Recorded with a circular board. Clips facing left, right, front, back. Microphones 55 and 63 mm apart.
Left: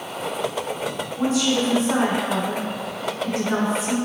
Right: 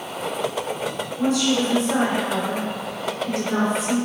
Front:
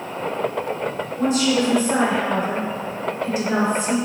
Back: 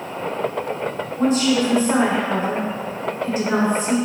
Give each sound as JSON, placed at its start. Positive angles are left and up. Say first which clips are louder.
{"t": 1.2, "sound": "a woman speaking", "louder": "right 1 dB, back 1 dB", "azimuth_deg": 140, "distance_m": 1.6}